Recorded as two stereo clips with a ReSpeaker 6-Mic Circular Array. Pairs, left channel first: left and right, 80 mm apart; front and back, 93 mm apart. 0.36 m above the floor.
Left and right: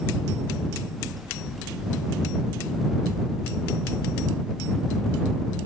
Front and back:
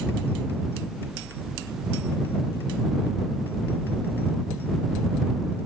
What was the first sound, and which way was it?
Only background noise.